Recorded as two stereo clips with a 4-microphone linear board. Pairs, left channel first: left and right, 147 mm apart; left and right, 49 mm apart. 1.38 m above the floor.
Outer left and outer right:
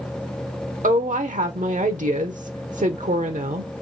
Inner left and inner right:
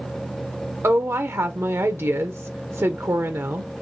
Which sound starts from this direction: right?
A woman speaking, at 0.8 s.